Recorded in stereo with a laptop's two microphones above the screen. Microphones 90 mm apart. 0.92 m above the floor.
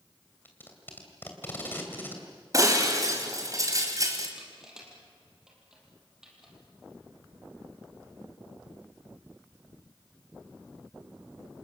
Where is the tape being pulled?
20° left (ahead or behind), 3 m.